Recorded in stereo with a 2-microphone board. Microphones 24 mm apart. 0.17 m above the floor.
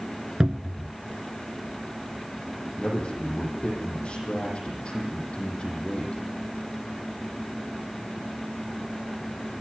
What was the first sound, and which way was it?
A cupboard door, 30° right (ahead or behind).